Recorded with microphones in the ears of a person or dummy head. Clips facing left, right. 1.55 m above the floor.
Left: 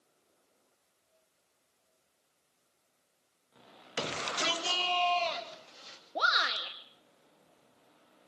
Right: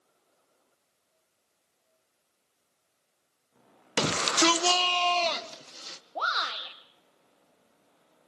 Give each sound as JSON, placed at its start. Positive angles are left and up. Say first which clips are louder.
{"t": 4.0, "sound": "a shout", "louder": "right 10 dB", "side_deg": -65, "distance_m": 1.0}
{"t": 6.2, "sound": "a shout", "louder": "even", "side_deg": 20, "distance_m": 2.0}